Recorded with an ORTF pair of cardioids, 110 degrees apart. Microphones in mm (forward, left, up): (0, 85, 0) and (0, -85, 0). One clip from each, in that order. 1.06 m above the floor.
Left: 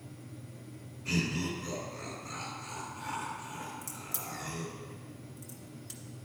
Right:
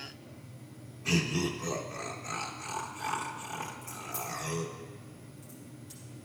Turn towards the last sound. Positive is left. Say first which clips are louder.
# right 3 dB
turn(degrees=60)